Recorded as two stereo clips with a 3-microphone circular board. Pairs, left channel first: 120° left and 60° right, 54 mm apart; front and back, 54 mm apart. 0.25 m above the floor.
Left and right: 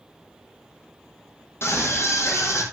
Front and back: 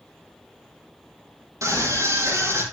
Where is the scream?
160° left, 7 m; by 2.6 s 150° left, 7.5 m.